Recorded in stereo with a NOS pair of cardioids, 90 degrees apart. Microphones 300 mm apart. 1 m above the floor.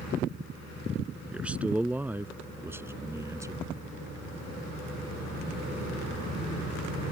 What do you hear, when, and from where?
1.3 s a man speaking: 5° right; by 3.6 s 10° right